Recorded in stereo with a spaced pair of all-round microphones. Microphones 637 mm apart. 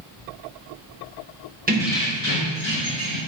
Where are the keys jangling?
15° right (ahead or behind), 0.7 m; by 3.2 s 60° left (ahead or behind), 1.4 m.